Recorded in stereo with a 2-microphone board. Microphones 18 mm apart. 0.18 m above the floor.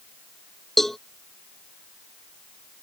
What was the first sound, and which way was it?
A cowbell, 20° left (ahead or behind).